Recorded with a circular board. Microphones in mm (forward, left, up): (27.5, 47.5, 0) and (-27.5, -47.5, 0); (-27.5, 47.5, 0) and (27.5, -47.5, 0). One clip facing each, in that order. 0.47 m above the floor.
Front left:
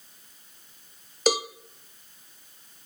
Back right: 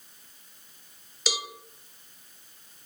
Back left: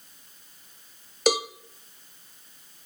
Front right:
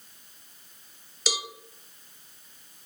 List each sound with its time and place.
1.3 s a cowbell: 95° left, 0.8 m